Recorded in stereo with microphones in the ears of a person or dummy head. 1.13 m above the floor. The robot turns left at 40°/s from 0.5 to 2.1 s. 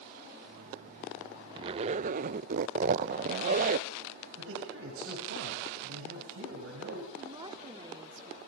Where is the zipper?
30° right (ahead or behind), 0.6 m; by 3.9 s 50° right (ahead or behind), 0.6 m.